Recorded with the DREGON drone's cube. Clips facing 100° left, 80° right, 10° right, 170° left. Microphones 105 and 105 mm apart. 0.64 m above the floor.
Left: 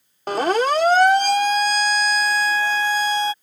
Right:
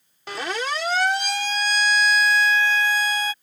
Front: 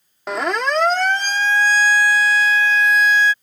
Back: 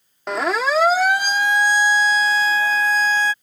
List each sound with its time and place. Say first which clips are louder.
0.3 s a siren: left 9 dB, even; 80° left; by 3.3 s 145° left